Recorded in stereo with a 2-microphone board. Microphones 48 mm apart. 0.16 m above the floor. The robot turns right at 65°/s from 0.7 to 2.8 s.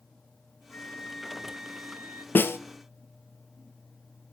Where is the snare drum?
45° left (ahead or behind), 0.6 m; by 2.6 s 60° left (ahead or behind), 0.6 m.